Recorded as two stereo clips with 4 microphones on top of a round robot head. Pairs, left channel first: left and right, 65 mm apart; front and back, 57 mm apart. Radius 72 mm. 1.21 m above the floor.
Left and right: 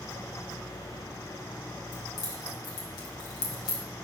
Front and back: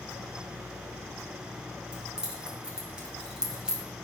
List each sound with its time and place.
1.9 s keys jangling: 105° left, 3 m